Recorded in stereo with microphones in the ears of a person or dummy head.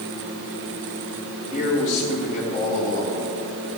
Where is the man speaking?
40° left (ahead or behind), 4.5 m.